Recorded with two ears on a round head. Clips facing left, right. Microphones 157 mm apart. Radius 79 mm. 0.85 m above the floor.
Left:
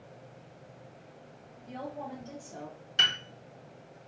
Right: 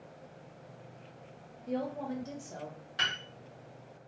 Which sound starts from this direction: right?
A woman speaking, at 1.7 s.